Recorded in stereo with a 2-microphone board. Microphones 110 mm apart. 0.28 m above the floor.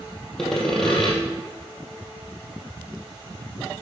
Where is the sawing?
5° left (ahead or behind), 2 m.